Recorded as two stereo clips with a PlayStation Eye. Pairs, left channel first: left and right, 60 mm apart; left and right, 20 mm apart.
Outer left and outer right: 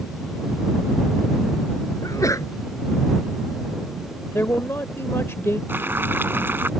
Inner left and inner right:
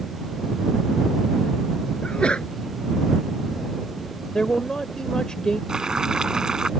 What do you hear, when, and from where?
2.0 s a sneeze: 65° left (ahead or behind)
4.3 s a man speaking: 50° left (ahead or behind)
5.7 s boiling: 40° right (ahead or behind)